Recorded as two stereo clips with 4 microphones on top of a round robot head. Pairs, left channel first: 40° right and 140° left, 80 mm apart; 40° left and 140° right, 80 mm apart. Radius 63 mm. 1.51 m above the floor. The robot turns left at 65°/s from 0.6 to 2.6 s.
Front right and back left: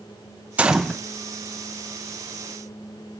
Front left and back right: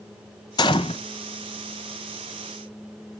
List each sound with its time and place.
0.6 s a gunshot: 70° left, 0.7 m; by 1.0 s 45° left, 0.7 m